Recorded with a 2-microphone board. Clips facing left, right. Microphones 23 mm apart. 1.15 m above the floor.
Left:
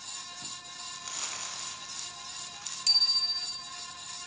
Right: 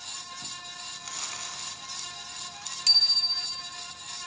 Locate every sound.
0.9 s crumpling: centre (ahead or behind), 4.5 m
2.9 s a bicycle bell: 30° right (ahead or behind), 2.5 m